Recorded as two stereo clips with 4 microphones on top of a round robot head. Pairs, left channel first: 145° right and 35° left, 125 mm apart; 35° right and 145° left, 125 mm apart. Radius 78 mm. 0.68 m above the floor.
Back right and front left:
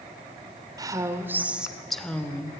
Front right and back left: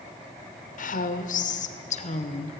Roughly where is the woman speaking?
Ahead right.